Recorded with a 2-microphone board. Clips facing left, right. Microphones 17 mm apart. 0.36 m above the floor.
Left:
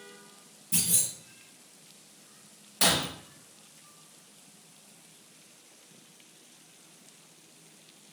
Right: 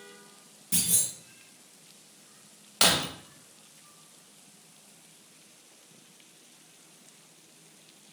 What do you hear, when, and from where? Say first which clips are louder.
0.7 s a clunk: even; 85° right, 2 m
2.8 s breaking glass: right 2 dB; 70° right (ahead or behind), 0.6 m